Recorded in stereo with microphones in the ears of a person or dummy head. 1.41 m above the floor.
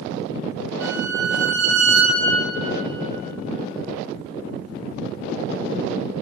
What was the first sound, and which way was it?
A violin, 65° right (ahead or behind).